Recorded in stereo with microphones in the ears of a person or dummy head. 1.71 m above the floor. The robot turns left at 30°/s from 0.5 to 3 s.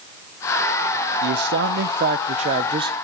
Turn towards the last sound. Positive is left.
turn(degrees=-150)